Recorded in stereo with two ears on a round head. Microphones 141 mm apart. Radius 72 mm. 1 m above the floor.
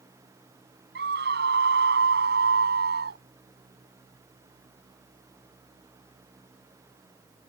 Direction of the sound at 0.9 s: 80° right.